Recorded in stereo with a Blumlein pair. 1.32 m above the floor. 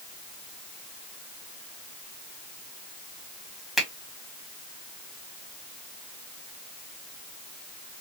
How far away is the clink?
No clink in this recording.